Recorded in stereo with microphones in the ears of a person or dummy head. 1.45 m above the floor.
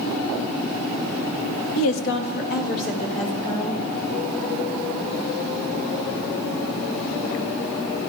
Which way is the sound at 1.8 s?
80° left.